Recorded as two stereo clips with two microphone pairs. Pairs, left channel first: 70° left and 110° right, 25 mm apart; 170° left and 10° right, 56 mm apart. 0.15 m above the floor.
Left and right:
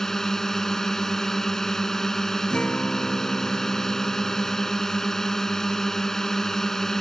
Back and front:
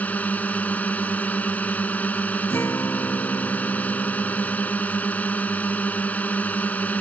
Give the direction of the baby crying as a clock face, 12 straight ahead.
No baby crying in this recording.